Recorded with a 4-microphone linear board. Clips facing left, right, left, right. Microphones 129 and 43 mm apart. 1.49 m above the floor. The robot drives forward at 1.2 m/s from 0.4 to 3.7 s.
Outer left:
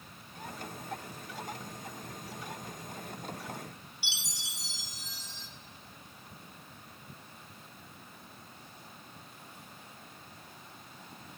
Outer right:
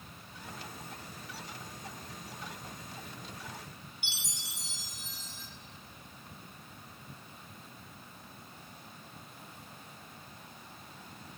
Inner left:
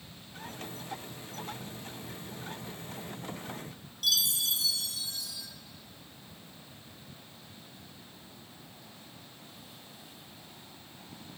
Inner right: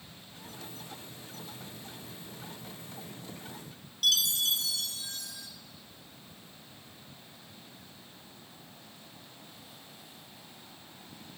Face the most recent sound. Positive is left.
turn(degrees=-50)  # may be behind; listen again after turning